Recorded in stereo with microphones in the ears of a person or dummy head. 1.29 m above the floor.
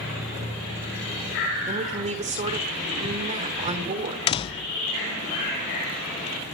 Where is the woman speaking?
35° right (ahead or behind), 3.5 m.